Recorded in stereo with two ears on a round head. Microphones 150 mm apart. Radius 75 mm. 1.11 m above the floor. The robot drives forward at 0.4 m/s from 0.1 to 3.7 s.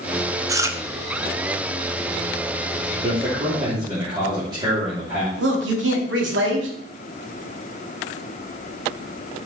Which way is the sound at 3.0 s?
30° right (ahead or behind).